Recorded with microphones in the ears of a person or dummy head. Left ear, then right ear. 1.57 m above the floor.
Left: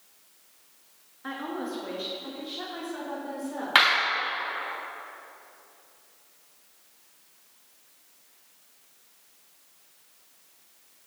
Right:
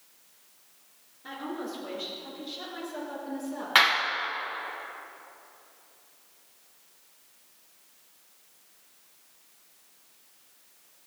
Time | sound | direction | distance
1.2 | a woman speaking | 50° left (ahead or behind) | 2.5 m
3.8 | a clap | 5° right (ahead or behind) | 1.2 m